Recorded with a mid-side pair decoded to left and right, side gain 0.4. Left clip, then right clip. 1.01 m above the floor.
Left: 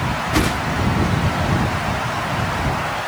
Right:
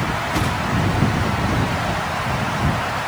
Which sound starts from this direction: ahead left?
A whoosh, at 0.3 s.